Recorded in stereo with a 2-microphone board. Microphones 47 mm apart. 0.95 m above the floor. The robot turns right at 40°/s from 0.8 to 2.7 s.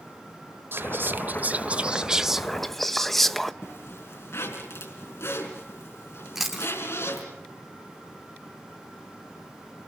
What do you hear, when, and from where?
0.7 s whispering: 70° right, 0.8 m; by 3.5 s 5° left, 0.8 m
3.6 s a zipper: 65° left (ahead or behind), 4 m
6.3 s chewing: 5° right (ahead or behind), 3 m